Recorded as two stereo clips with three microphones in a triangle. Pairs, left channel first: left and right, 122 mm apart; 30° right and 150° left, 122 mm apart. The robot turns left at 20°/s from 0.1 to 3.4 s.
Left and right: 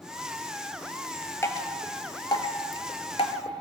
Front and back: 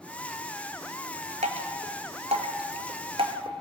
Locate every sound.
1.4 s dripping: 155° left, 0.7 m; by 3.5 s 115° left, 0.7 m